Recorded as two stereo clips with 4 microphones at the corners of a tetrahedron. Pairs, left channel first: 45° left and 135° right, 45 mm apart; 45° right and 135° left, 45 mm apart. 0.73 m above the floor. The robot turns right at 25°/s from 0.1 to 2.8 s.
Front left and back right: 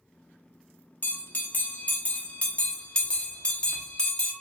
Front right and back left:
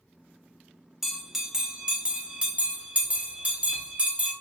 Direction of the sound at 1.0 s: 55° left.